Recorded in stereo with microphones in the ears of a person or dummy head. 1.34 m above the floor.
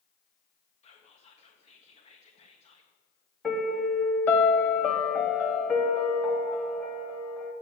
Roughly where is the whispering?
Left.